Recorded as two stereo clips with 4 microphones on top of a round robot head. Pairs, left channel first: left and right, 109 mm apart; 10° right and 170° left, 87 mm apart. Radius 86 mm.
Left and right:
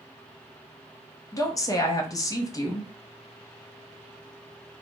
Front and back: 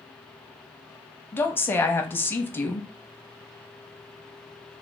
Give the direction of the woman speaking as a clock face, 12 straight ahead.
10 o'clock.